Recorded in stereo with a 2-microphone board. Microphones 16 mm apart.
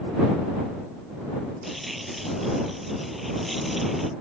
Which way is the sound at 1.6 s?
5° right (ahead or behind).